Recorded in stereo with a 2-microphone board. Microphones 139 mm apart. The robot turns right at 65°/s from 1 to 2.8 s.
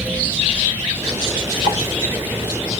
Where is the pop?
35° right (ahead or behind), 2 m; by 1.8 s 25° right (ahead or behind), 2 m.